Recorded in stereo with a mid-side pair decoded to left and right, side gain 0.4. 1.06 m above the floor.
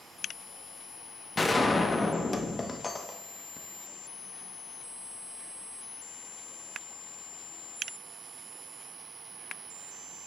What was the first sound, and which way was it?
A gunshot, 30° left.